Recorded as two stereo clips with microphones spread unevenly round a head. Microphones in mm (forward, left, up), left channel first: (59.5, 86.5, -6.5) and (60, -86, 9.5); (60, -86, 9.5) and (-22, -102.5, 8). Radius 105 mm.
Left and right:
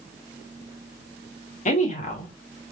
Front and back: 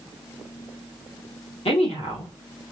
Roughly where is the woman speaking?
Ahead left.